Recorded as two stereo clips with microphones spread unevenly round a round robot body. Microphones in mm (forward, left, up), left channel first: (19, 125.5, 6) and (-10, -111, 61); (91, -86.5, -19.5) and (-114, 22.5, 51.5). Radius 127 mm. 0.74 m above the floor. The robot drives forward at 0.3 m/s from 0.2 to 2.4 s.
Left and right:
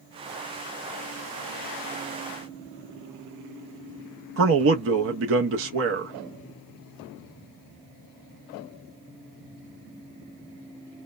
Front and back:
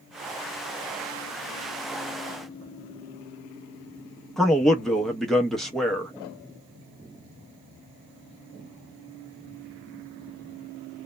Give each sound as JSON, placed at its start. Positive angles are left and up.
{"t": 4.4, "sound": "a man speaking", "azimuth_deg": -95, "distance_m": 0.6}